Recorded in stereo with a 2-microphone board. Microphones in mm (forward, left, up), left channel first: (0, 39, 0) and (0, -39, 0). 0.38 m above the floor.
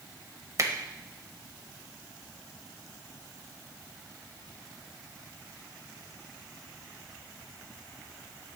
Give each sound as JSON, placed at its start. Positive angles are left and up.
{"t": 0.6, "sound": "a finger snap", "side_deg": -45, "distance_m": 1.1}